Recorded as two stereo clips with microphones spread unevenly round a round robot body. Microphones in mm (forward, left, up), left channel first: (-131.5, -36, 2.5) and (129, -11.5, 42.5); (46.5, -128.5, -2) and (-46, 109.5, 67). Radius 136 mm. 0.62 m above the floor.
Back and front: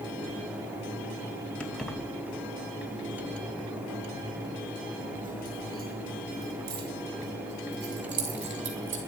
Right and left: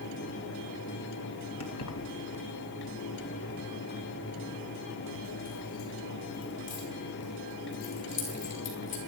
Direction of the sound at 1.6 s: 90° right.